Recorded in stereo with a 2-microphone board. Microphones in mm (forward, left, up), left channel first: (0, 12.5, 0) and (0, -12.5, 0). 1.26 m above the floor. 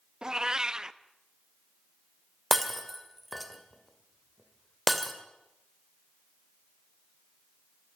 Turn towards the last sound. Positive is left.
turn(degrees=0)  # may be behind; listen again after turning